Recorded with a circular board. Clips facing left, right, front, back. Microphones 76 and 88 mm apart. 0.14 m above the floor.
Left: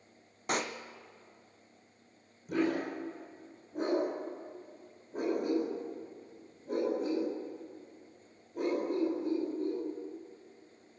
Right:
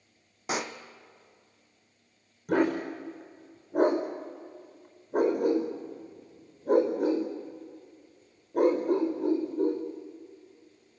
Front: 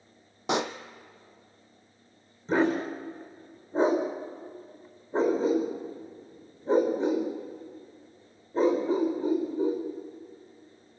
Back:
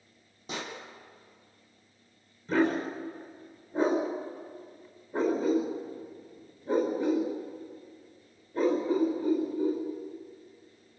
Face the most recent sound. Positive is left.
turn(degrees=-65)